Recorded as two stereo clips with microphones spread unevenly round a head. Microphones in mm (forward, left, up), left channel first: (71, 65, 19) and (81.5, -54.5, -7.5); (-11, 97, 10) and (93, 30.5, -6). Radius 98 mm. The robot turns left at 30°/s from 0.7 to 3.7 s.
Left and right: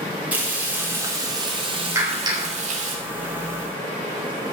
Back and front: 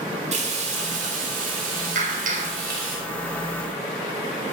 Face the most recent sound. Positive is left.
turn(degrees=-70)